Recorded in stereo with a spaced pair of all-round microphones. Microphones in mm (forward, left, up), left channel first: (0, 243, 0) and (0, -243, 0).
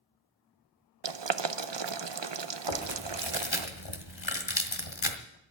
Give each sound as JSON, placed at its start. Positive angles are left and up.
{"t": 1.0, "sound": "boiling", "side_deg": -60, "distance_m": 0.7}
{"t": 2.7, "sound": "chewing", "side_deg": 65, "distance_m": 1.6}